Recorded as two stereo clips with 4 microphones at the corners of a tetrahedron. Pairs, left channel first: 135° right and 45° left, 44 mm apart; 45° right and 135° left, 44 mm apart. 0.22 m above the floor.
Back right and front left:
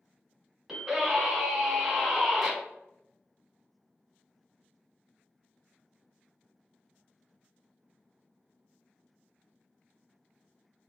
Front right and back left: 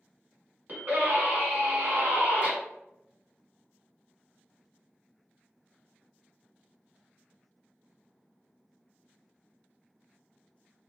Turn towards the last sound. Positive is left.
turn(degrees=125)